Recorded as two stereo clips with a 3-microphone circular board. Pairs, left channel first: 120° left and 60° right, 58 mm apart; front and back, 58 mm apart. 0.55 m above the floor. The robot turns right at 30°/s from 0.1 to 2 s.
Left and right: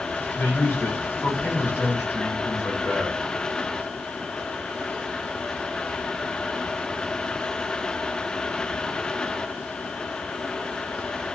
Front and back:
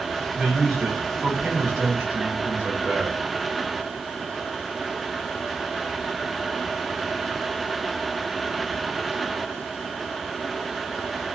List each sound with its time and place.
0.3 s a man speaking: 105° left, 1.6 m; by 3.1 s 150° left, 1.6 m